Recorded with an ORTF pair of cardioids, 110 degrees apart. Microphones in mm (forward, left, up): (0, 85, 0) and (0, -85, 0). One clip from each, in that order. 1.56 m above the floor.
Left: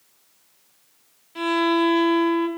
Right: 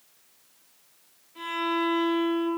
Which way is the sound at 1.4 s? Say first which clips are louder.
Left 7 dB; 55° left.